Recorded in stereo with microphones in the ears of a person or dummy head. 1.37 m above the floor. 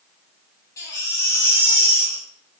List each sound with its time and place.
0.8 s a baby crying: 15° left (ahead or behind), 8 m